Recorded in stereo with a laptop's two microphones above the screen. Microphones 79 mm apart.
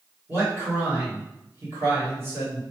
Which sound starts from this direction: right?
A man speaking, at 0.3 s.